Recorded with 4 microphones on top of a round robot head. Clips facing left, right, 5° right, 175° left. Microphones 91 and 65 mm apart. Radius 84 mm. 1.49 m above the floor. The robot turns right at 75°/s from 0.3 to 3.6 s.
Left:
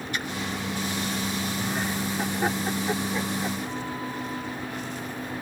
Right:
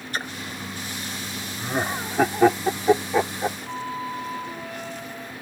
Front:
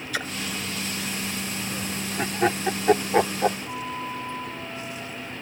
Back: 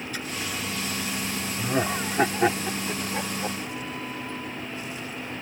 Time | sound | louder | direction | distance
0.1 | a splash | right 3 dB, front 7 dB | 30° right | ?
1.6 | laughter | right 2 dB, back 6 dB | 165° right | ?
3.7 | a flute | right 2 dB, front 2 dB | 85° right | ?